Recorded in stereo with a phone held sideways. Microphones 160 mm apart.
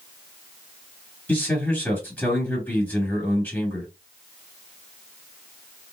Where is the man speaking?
10° left (ahead or behind), 2 m.